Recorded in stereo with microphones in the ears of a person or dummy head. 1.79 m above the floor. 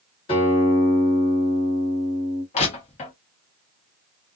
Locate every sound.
0.3 s a guitar: 30° left (ahead or behind), 1.5 m
2.5 s crushing: 40° left (ahead or behind), 1.2 m